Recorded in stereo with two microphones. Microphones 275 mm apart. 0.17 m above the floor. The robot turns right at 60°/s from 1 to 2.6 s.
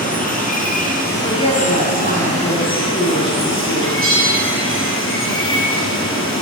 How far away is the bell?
About 3 m.